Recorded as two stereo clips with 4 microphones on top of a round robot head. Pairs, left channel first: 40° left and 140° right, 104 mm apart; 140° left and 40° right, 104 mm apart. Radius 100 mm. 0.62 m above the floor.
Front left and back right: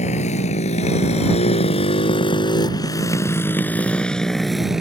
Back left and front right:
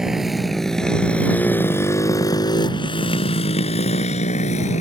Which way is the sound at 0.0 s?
45° left.